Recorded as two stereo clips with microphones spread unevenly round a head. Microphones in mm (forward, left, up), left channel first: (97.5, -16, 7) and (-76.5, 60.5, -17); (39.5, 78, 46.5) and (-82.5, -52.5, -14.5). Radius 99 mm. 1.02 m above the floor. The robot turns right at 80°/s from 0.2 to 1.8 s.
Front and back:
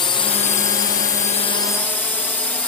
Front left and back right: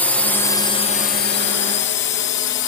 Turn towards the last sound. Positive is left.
turn(degrees=60)